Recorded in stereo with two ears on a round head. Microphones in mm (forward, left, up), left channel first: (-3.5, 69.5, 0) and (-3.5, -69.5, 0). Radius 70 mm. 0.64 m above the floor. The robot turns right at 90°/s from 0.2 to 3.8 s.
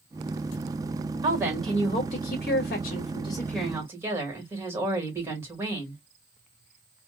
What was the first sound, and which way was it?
A woman speaking, 35° right.